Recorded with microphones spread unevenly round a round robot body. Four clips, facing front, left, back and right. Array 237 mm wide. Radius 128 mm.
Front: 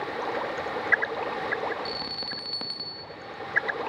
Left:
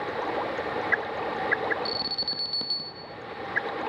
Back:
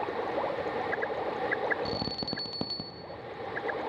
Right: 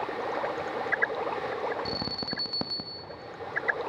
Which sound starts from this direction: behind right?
An alarm, at 1.9 s.